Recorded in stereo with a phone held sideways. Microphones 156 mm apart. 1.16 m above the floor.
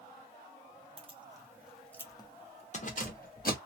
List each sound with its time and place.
1.0 s keys jangling: 35° right (ahead or behind), 0.7 m; by 3.6 s 65° left (ahead or behind), 1.0 m